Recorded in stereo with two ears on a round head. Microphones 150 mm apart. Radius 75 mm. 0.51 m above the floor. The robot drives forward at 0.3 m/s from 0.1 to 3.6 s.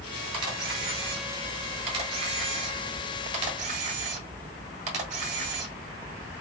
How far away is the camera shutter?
About 2.5 m.